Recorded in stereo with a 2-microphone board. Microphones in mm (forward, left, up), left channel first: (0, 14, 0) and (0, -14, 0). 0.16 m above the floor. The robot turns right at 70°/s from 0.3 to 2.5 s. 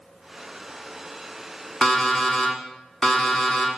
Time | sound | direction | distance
1.8 | an alarm clock | 20° left (ahead or behind) | 0.8 m